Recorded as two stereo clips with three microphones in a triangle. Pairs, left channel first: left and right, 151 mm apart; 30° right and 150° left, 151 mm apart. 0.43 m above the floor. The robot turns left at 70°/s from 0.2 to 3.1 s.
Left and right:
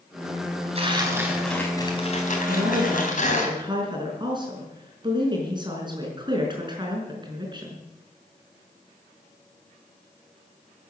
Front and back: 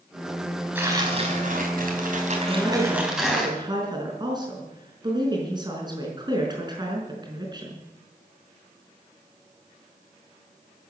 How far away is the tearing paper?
About 3.5 m.